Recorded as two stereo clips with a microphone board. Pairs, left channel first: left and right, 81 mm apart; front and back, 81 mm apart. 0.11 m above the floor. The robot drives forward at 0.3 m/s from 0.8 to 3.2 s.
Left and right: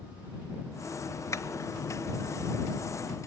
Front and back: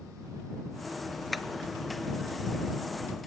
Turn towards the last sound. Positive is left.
turn(degrees=135)